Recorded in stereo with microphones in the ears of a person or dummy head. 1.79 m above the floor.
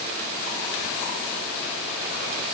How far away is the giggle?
I don't hear a giggle.